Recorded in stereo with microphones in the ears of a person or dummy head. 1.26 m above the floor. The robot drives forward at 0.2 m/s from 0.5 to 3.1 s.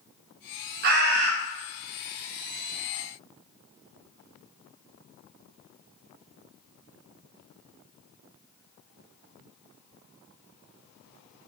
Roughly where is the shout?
I don't hear a shout.